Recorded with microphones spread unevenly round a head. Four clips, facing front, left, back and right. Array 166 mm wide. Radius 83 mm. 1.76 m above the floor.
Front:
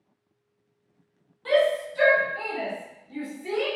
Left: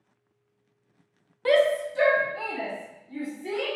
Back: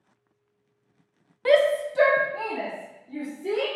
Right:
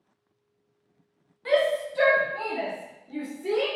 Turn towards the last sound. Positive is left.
turn(degrees=-130)